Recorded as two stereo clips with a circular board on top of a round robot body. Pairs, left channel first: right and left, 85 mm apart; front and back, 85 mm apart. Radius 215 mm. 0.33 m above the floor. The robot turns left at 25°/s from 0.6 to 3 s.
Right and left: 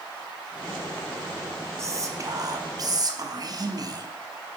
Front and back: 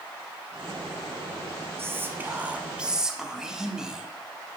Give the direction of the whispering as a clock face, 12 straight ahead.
8 o'clock.